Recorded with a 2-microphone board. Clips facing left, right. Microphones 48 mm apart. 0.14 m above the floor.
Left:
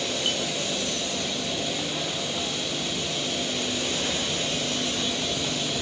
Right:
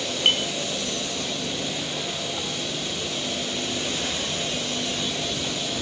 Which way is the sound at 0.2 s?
60° right (ahead or behind).